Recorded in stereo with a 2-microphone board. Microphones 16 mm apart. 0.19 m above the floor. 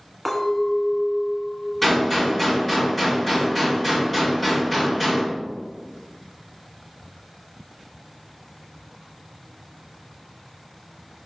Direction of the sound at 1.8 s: 15° left (ahead or behind).